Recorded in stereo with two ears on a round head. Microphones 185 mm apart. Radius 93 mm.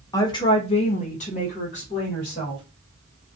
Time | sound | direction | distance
0.1 | a woman speaking | 15° left (ahead or behind) | 0.6 m